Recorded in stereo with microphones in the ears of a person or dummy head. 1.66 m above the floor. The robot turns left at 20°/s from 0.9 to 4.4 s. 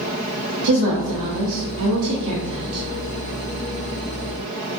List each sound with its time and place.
0.6 s a woman speaking: 70° right (ahead or behind), 0.9 m